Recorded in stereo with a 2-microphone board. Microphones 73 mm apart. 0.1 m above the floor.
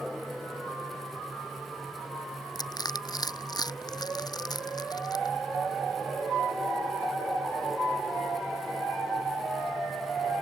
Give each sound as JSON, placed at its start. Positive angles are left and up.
{"t": 2.5, "sound": "crushing", "side_deg": 65}